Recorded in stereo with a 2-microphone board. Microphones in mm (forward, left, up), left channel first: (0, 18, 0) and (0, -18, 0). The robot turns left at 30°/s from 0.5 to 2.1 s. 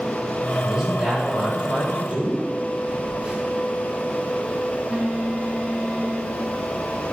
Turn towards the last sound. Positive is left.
turn(degrees=-25)  # may be behind; listen again after turning